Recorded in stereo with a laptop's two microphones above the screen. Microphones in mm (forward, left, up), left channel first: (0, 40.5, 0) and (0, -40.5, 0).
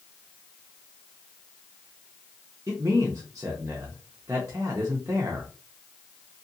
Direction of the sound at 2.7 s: 40° right (ahead or behind).